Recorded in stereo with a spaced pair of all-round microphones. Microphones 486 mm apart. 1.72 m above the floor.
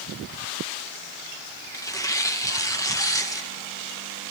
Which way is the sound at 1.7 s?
5° left (ahead or behind).